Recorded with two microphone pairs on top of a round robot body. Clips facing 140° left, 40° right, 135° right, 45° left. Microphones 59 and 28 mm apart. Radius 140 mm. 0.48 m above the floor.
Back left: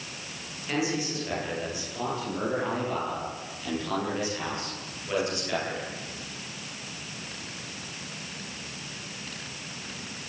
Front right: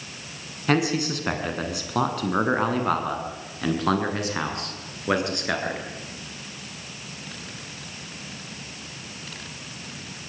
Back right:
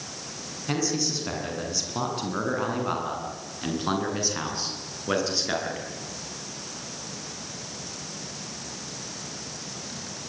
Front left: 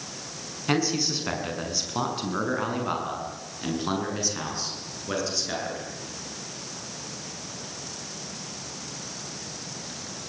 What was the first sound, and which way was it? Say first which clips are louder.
A man speaking: front right 6 dB, front left 2 dB; 20° right.